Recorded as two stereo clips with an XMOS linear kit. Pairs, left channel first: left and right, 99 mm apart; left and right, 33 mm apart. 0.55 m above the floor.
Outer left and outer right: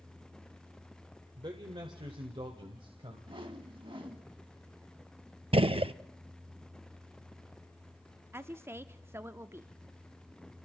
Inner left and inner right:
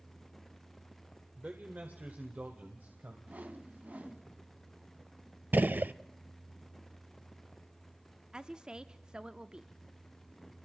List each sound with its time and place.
1.4 s a man speaking: 55° right (ahead or behind), 1.6 m; by 3.2 s 70° right (ahead or behind), 2.5 m
3.3 s a whoosh: 65° right (ahead or behind), 1.5 m
5.5 s a gunshot: 75° right (ahead or behind), 0.5 m
8.3 s a woman speaking: 25° right (ahead or behind), 0.7 m